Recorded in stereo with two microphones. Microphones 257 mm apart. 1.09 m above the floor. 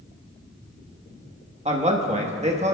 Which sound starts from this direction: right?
A man speaking, at 1.6 s.